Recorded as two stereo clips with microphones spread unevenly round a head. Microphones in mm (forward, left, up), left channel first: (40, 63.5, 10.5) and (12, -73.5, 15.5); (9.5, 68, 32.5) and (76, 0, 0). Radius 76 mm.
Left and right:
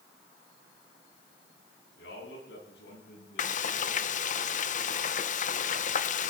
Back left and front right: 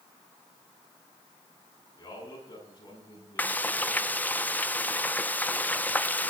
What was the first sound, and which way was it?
A man speaking, 90° left.